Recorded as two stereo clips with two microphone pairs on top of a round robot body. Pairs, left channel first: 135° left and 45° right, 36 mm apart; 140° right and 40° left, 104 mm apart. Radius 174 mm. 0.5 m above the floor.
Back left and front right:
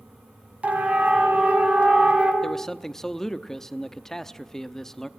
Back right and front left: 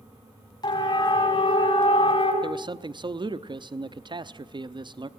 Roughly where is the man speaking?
Ahead left.